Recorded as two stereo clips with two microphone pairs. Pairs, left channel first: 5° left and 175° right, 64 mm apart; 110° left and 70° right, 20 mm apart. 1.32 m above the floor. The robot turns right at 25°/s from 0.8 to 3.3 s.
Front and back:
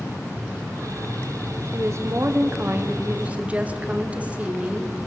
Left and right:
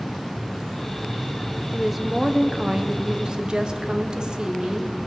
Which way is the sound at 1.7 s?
155° right.